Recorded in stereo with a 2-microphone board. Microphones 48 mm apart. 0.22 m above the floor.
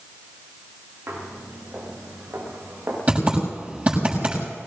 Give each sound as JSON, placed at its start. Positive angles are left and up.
{"t": 1.1, "sound": "footsteps", "side_deg": -50, "distance_m": 7.5}
{"t": 3.1, "sound": "typing on a keyboard", "side_deg": -30, "distance_m": 7.0}